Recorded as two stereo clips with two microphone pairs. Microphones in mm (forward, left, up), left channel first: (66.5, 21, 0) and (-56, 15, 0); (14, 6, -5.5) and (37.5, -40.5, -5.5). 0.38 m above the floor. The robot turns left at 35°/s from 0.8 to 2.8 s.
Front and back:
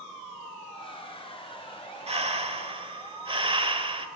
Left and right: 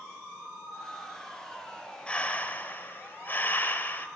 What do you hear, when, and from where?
2.1 s breathing: 175° right, 1.4 m; by 4.1 s 155° left, 1.4 m